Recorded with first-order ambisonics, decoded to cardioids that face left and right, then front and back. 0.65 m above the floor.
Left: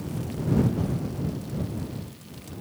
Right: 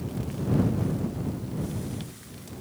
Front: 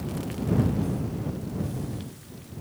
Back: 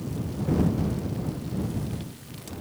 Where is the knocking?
I don't hear knocking.